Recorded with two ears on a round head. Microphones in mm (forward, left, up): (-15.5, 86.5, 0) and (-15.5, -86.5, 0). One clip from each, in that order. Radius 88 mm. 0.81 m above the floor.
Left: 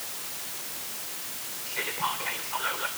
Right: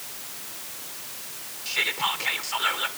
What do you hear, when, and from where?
1.6 s whispering: 60° right (ahead or behind), 2.5 m